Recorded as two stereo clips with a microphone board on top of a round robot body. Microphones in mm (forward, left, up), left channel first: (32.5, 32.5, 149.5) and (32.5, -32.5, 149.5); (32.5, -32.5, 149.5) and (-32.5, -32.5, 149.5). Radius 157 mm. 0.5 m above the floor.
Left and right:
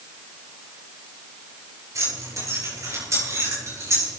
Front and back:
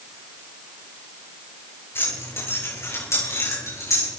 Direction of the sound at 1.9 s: 50° right.